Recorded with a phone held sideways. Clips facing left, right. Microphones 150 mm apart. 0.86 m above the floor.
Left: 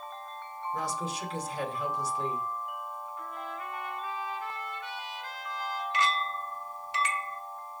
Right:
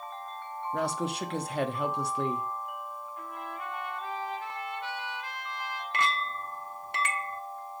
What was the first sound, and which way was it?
A woman speaking, 75° right (ahead or behind).